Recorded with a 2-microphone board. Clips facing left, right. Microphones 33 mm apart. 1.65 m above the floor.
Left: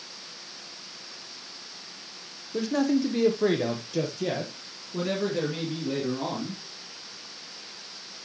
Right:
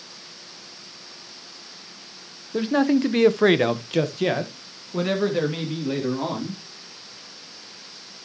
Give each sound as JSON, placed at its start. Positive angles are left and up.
{"t": 2.5, "sound": "a man speaking", "side_deg": -30, "distance_m": 1.2}